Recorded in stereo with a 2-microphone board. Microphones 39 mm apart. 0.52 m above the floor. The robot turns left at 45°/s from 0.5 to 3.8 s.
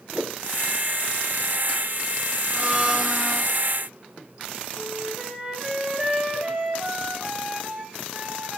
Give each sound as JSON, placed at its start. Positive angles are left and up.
{"t": 0.1, "sound": "a whoosh", "side_deg": -35, "distance_m": 0.8}
{"t": 2.5, "sound": "a blender", "azimuth_deg": -135, "distance_m": 4.0}
{"t": 4.8, "sound": "a flute", "side_deg": -25, "distance_m": 3.0}